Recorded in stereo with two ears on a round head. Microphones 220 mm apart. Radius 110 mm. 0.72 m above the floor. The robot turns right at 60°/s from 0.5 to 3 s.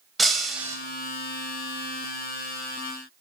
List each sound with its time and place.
0.2 s breaking glass: centre (ahead or behind), 1.1 m; by 0.8 s 15° right (ahead or behind), 1.1 m